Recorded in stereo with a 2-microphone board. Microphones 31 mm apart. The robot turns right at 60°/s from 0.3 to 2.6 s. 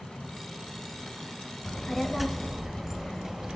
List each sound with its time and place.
1.6 s a child speaking: 150° left, 0.5 m; by 3.6 s 155° right, 0.5 m